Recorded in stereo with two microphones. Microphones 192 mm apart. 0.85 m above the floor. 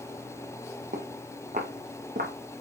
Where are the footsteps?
40° right (ahead or behind), 2 m; by 2.3 s 45° right (ahead or behind), 3 m.